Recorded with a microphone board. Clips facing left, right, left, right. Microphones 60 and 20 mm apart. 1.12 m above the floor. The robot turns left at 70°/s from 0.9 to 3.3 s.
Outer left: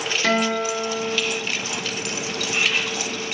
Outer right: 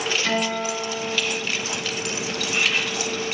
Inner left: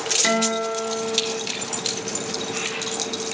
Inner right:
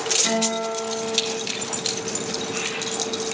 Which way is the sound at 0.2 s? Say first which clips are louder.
Outer left 7 dB, inner left 2 dB; 90° left.